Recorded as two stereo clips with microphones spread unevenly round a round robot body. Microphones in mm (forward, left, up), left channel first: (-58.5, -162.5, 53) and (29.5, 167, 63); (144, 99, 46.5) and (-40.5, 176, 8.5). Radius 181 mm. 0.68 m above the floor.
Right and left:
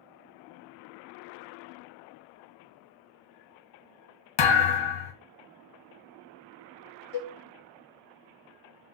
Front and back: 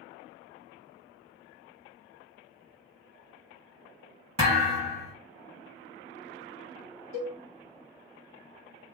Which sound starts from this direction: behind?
A cowbell, at 7.1 s.